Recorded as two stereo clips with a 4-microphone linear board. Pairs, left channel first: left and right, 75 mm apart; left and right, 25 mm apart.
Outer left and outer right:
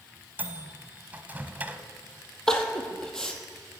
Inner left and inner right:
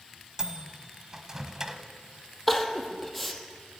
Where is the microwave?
20° right (ahead or behind), 1.0 m.